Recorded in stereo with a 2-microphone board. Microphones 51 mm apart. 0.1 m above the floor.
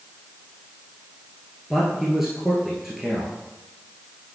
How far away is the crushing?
No crushing in this recording.